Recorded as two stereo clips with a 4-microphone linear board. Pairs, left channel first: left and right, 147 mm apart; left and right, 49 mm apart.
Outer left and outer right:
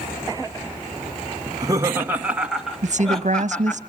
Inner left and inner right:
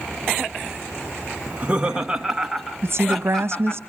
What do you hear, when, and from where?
1.5 s laughter: 30° right (ahead or behind), 0.9 m; by 3.8 s 10° left (ahead or behind), 1.9 m
2.8 s a woman speaking: 55° right (ahead or behind), 0.9 m